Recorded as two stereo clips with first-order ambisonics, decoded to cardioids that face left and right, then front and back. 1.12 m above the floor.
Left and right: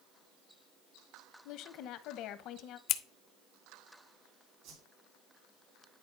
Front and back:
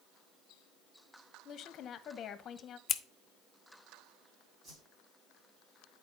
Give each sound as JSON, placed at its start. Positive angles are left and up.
{"t": 1.4, "sound": "a woman speaking", "azimuth_deg": 55, "distance_m": 0.8}
{"t": 2.9, "sound": "scissors", "azimuth_deg": 60, "distance_m": 0.6}
{"t": 4.6, "sound": "a whoosh", "azimuth_deg": -120, "distance_m": 2.5}